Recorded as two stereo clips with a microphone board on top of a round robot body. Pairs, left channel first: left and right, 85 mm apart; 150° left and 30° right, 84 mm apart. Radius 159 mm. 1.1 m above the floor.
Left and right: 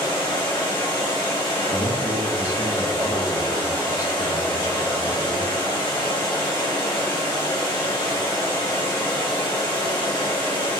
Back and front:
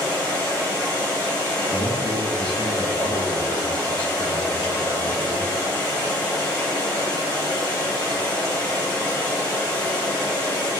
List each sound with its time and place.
0.0 s running water: 75° left, 1.8 m
1.7 s a man speaking: 135° left, 1.7 m